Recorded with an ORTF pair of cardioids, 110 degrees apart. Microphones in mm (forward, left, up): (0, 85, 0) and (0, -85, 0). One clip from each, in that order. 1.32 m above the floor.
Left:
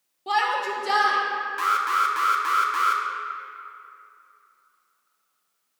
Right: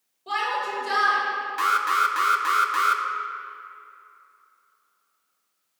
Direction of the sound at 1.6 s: 10° right.